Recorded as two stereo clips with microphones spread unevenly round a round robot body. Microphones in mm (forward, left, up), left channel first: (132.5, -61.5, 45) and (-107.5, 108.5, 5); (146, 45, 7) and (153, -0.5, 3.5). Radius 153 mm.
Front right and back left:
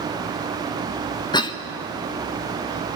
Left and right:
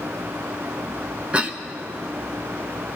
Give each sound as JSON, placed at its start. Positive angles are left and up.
{"t": 1.3, "sound": "a cough", "azimuth_deg": -115, "distance_m": 0.9}